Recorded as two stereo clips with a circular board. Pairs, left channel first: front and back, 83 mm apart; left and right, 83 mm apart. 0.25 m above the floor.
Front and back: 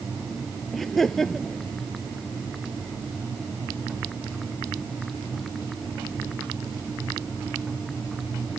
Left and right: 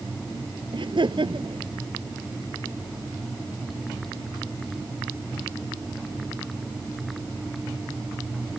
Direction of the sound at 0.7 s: 85° right.